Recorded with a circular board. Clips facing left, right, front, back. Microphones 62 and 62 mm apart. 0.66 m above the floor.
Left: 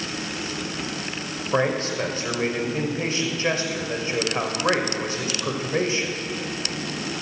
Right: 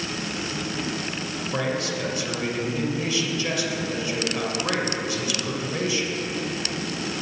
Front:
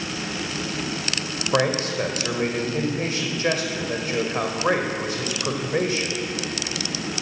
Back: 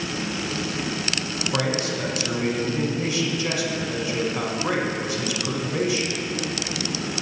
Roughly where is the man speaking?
Ahead left.